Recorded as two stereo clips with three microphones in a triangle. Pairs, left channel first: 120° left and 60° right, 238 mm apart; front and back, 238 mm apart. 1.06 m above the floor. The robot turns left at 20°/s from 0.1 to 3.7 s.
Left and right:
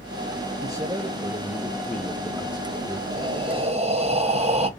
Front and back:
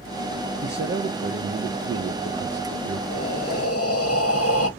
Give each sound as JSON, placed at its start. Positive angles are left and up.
{"t": 0.6, "sound": "a man speaking", "azimuth_deg": -130, "distance_m": 0.6}
{"t": 3.1, "sound": "breathing", "azimuth_deg": 15, "distance_m": 0.7}